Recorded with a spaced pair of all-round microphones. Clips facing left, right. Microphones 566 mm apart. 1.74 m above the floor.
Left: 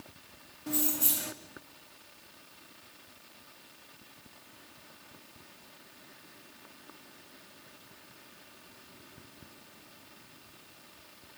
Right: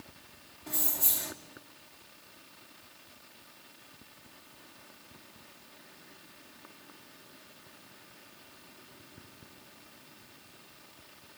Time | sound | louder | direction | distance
0.7 | keys jangling | left 8 dB | 50° left (ahead or behind) | 3 m